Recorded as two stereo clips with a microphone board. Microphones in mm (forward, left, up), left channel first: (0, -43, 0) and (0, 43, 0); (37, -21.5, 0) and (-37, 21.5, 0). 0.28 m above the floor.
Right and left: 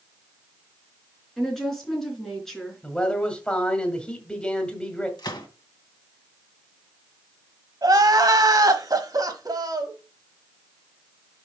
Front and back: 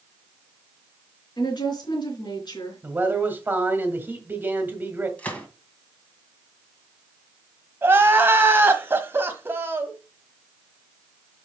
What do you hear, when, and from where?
1.4 s a woman speaking: 5° right, 4 m
2.8 s a man speaking: 160° right, 1.8 m
5.2 s a gunshot: 100° right, 1.8 m
7.8 s crying: 100° left, 1.1 m